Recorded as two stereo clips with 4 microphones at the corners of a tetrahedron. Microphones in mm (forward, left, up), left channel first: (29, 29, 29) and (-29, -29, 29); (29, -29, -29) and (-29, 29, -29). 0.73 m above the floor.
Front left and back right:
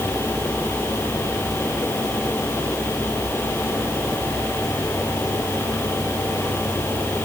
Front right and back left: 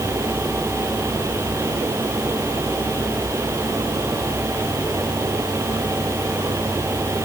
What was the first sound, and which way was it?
Only background noise.